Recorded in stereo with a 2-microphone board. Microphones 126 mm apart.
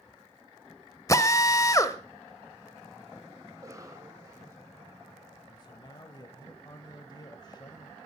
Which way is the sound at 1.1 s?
25° left (ahead or behind).